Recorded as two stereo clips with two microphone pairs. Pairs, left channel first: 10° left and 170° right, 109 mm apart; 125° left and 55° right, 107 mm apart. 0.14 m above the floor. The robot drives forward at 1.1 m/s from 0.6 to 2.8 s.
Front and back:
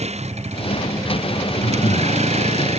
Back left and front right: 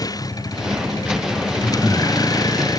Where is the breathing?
25° left; by 2.2 s 40° left.